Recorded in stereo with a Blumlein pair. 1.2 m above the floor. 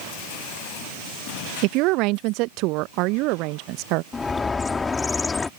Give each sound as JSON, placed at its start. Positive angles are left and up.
{"t": 1.6, "sound": "a woman speaking", "azimuth_deg": -40}
{"t": 4.1, "sound": "a bird", "azimuth_deg": 15}